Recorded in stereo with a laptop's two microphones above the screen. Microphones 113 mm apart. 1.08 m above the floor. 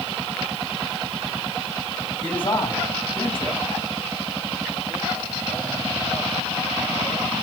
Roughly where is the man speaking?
Left.